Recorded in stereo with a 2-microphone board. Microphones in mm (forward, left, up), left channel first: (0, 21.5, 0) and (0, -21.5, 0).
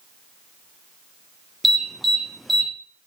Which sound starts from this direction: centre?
An alarm, at 1.6 s.